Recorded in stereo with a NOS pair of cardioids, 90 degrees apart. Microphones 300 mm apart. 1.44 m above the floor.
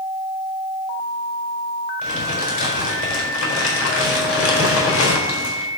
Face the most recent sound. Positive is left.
turn(degrees=50)